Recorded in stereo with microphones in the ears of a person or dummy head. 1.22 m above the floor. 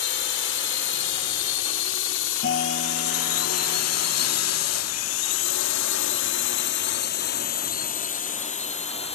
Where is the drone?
65° left (ahead or behind); by 9.2 s 30° left (ahead or behind).